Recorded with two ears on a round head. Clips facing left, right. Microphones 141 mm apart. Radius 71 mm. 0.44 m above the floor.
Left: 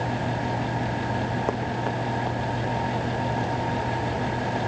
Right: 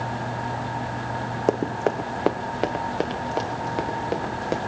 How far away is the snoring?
I don't hear snoring.